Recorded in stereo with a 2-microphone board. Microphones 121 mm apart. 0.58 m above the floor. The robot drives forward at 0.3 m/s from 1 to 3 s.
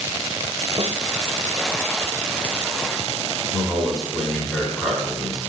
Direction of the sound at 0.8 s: 50° right (ahead or behind).